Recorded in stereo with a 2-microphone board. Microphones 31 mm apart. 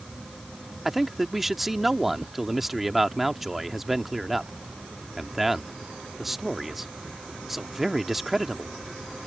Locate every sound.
0.8 s a man speaking: 5° right (ahead or behind)